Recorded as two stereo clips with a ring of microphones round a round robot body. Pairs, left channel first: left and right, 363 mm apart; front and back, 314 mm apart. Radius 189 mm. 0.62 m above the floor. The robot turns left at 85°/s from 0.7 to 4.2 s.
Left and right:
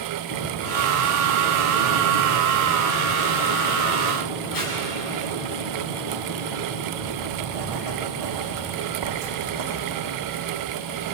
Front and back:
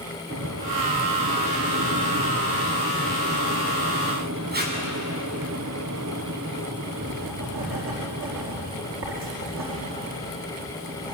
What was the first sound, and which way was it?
Tape being pulled, 120° left.